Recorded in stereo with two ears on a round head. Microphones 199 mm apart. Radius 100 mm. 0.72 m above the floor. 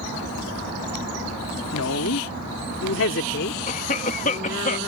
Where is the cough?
35° left (ahead or behind).